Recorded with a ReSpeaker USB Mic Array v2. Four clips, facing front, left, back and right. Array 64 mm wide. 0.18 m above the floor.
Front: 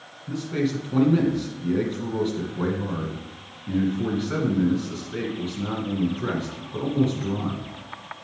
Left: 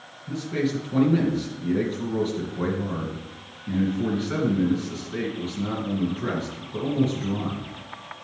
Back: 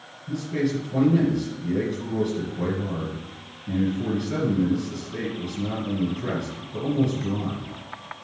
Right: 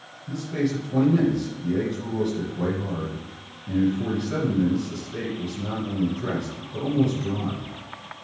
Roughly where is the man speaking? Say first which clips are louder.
Even, even; ahead left.